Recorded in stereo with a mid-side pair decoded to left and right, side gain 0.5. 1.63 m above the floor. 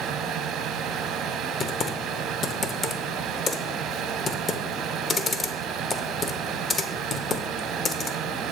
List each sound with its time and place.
0.0 s a fan: 65° right, 0.8 m
1.6 s typing on a keyboard: 40° left, 0.9 m